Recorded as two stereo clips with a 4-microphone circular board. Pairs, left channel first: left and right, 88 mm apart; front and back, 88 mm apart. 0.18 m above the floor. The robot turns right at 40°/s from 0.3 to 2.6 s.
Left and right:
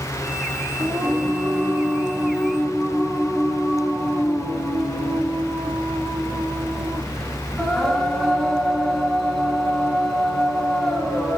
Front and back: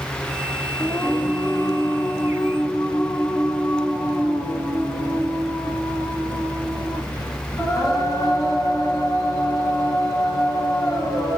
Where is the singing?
70° right, 1.7 m; by 11.4 s 5° left, 1.7 m.